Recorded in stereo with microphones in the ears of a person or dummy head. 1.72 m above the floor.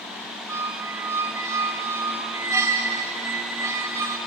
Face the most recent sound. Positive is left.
turn(degrees=-10)  # may be behind; listen again after turning